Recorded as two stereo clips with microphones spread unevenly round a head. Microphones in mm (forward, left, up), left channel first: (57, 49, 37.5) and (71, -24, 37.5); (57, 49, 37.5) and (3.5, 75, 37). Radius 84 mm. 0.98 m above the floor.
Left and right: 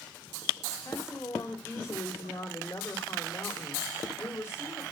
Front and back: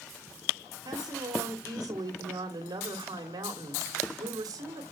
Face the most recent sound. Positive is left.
turn(degrees=175)